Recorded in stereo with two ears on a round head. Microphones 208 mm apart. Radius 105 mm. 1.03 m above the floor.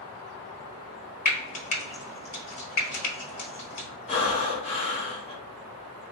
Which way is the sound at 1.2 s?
30° left (ahead or behind).